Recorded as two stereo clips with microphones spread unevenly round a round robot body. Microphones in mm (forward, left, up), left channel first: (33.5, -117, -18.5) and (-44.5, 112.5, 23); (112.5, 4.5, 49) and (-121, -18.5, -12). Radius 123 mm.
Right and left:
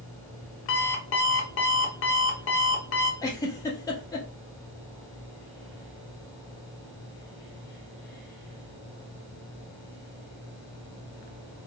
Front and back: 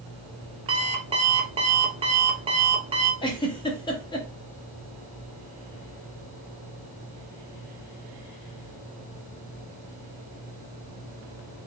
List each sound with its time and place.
0.7 s an alarm clock: 105° right, 0.9 m
3.2 s a giggle: 75° right, 1.0 m